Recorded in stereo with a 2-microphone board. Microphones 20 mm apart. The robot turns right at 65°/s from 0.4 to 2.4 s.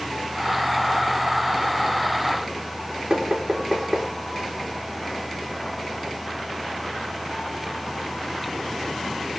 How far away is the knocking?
About 3.5 m.